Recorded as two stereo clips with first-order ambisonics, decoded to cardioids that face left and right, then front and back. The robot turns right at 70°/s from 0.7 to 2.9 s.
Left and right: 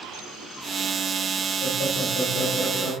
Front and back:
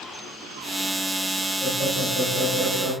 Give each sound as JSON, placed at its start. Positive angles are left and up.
{"t": 1.6, "sound": "laughter", "azimuth_deg": 30, "distance_m": 4.0}